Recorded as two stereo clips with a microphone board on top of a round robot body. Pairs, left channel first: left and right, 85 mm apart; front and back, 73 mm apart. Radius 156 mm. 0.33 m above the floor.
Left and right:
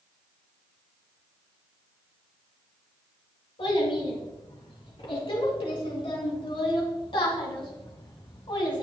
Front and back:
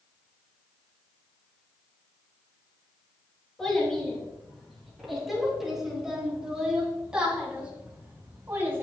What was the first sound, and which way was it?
A child speaking, 85° left.